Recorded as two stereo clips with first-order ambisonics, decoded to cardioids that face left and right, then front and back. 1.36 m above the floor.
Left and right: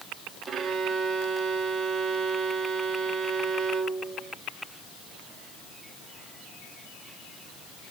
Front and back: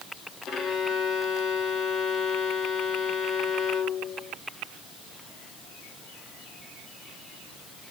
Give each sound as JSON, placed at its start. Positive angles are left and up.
{"t": 0.5, "sound": "a violin", "azimuth_deg": -40, "distance_m": 1.3}